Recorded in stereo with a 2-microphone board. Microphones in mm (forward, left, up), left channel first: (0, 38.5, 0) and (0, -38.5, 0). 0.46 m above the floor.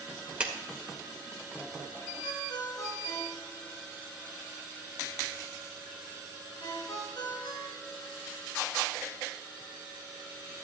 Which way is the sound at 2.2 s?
65° left (ahead or behind).